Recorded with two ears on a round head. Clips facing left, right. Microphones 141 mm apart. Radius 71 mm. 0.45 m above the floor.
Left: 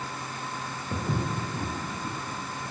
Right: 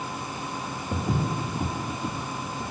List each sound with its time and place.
0.9 s footsteps: centre (ahead or behind), 1.0 m; by 2.7 s 50° right (ahead or behind), 0.6 m